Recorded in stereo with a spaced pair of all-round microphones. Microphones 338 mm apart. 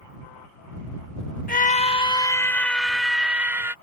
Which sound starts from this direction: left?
A scream, at 1.5 s.